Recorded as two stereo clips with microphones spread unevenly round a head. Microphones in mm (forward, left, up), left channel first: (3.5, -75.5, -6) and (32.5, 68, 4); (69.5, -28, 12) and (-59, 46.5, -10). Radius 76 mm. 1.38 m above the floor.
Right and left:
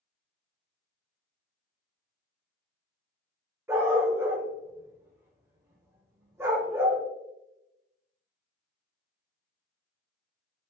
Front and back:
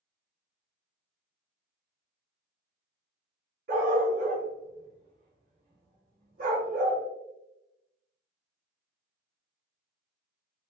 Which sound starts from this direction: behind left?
A dog barking, at 3.7 s.